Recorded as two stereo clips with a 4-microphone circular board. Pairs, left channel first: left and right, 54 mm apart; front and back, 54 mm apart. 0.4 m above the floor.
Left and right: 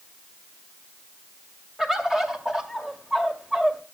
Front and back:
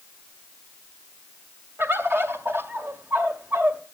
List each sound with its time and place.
1.8 s a bird: 170° right, 1.8 m